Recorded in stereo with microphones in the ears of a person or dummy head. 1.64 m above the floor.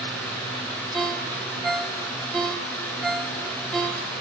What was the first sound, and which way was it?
A ringtone, 5° right (ahead or behind).